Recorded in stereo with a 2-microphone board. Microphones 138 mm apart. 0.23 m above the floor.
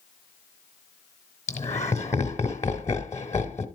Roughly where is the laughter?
Left.